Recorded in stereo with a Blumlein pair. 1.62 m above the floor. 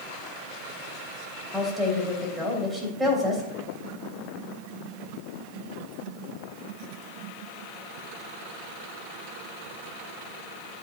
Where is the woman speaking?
10° right, 2.5 m.